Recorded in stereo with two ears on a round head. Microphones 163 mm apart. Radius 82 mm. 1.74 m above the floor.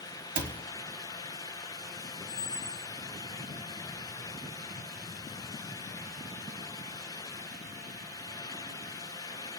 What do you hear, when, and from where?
0.3 s a cupboard door: 50° right (ahead or behind), 1.0 m
2.3 s a squeak: 40° left (ahead or behind), 0.9 m